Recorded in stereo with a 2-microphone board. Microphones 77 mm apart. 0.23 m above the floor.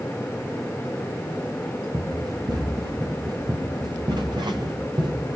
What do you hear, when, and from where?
1.9 s running footsteps: 65° right (ahead or behind), 5.5 m; by 5.4 s 80° right, 4 m